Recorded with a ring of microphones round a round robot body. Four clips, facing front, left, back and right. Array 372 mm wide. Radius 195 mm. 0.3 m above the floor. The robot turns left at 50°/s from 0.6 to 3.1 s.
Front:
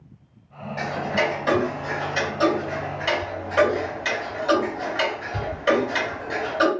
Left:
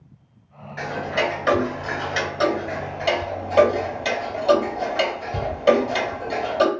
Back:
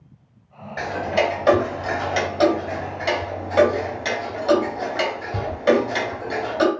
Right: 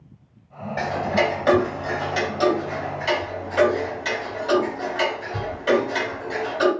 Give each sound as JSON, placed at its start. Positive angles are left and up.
{"t": 0.8, "sound": "ticking", "azimuth_deg": -125, "distance_m": 2.0}